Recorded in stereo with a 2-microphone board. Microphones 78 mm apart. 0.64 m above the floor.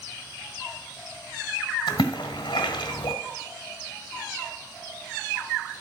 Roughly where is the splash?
Left.